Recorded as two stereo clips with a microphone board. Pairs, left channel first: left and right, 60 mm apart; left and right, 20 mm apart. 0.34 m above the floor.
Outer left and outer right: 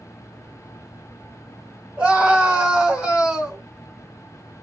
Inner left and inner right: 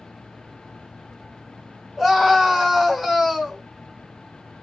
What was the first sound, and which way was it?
A scream, 20° right (ahead or behind).